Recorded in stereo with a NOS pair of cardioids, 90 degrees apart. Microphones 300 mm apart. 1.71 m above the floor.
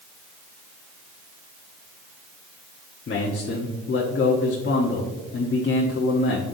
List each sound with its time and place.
3.1 s a man speaking: 40° left, 1.2 m